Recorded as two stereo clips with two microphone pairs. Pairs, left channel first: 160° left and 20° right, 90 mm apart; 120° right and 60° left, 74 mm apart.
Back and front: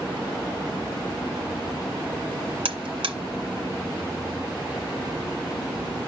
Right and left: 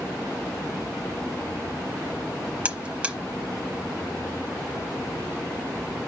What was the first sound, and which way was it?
A buzzer, 20° right.